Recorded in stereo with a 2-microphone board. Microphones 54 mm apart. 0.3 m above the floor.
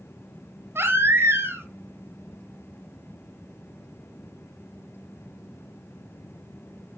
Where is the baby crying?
50° right (ahead or behind), 1.6 m.